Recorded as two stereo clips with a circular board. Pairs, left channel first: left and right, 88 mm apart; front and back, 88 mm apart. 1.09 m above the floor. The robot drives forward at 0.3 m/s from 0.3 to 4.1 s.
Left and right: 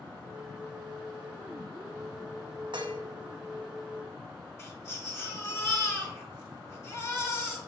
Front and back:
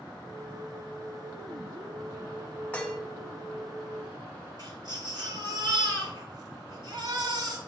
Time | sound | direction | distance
2.7 | dishes clattering | 75° right | 0.8 m
4.6 | a baby crying | 150° left | 2 m